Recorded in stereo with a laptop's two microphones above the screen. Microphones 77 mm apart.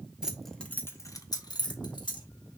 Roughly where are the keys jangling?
Centre.